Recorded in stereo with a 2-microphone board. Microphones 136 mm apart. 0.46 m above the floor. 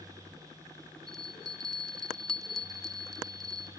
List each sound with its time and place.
1.1 s a bell: 5° left (ahead or behind), 0.5 m